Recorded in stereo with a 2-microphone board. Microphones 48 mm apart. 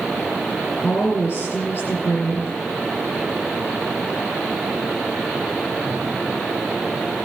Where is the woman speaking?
55° left (ahead or behind), 2.5 m.